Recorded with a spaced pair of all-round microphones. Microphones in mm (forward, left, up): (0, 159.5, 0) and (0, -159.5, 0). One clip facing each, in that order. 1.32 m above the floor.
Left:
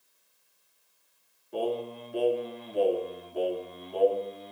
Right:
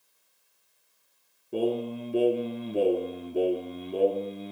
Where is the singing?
50° right (ahead or behind), 2 m.